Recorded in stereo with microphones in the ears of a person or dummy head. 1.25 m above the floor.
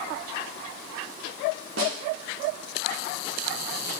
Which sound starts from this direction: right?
A snare drum, at 1.8 s.